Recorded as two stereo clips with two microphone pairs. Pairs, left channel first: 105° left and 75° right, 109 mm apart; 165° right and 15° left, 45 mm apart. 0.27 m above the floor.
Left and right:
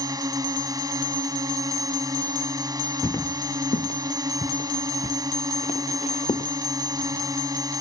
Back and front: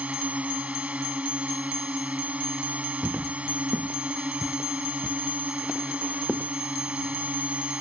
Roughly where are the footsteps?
Ahead left.